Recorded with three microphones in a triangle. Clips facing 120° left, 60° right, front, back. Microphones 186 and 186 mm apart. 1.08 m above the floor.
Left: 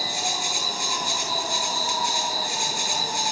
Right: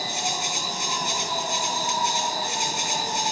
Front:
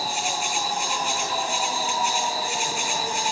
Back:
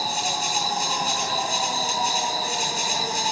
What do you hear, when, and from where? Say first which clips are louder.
0.0 s an insect: even, even; 130° right, 4 m